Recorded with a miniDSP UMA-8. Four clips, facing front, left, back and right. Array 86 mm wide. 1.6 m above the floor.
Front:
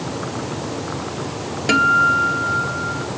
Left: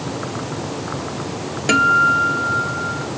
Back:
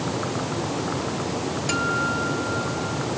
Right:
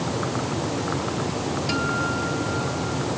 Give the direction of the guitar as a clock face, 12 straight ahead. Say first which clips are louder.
Left 14 dB, front 11 dB; 10 o'clock.